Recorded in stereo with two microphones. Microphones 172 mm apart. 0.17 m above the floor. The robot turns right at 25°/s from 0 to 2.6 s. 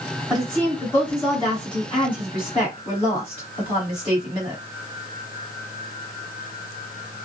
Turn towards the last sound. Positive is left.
turn(degrees=35)  # may be behind; listen again after turning